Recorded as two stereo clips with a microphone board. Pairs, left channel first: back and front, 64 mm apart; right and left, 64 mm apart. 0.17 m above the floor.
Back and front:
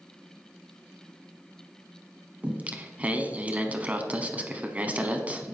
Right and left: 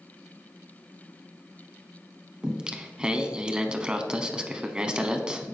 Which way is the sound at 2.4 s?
30° left.